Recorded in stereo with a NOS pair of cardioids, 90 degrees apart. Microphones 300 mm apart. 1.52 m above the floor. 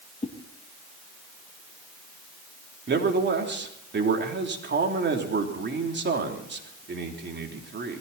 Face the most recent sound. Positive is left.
turn(degrees=-35)